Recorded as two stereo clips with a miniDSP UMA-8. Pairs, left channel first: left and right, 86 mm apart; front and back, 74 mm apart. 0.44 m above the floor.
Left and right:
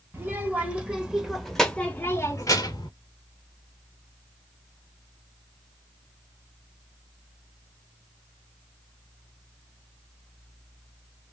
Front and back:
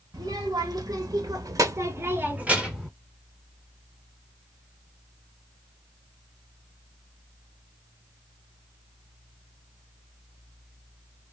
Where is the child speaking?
155° right, 1.4 m; by 2.9 s 95° left, 0.8 m.